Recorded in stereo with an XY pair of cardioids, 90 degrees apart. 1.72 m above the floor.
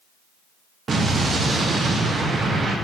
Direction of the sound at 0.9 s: 45° right.